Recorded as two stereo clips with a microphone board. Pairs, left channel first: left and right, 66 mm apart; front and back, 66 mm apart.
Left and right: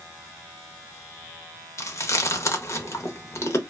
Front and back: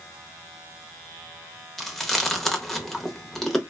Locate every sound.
1.8 s chewing: 85° left, 0.6 m